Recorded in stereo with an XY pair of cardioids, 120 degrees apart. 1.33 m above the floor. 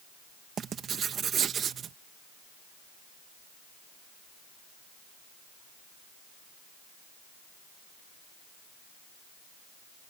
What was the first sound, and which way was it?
Writing, 45° right.